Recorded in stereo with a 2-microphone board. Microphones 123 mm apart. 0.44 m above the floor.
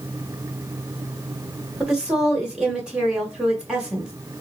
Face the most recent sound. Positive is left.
turn(degrees=-10)  # may be behind; listen again after turning